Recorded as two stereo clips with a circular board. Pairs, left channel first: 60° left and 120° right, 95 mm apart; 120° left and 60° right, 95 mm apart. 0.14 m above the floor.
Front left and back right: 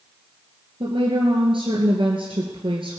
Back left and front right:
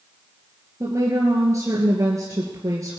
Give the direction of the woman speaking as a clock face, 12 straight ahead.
4 o'clock.